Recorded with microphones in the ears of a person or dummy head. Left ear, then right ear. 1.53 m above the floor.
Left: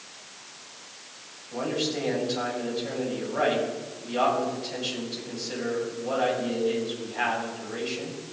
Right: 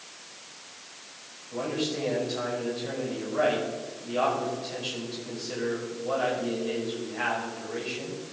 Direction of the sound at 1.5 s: 5° left (ahead or behind).